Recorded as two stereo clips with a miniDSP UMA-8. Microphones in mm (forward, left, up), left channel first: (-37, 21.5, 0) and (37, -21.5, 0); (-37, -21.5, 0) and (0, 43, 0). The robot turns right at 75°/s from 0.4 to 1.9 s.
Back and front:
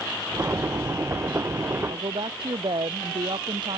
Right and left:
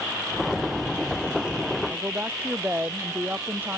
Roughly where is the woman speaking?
Ahead.